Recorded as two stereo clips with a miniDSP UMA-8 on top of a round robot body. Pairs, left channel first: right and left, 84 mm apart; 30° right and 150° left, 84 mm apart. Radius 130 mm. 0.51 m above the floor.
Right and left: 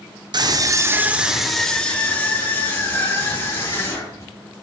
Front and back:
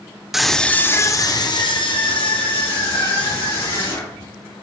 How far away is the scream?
About 1.6 m.